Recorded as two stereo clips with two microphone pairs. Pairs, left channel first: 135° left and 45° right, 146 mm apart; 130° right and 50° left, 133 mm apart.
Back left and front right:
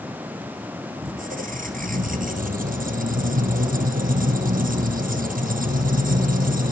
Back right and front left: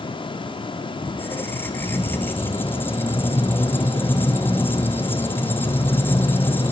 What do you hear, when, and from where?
1.0 s a squeak: 55° right, 1.6 m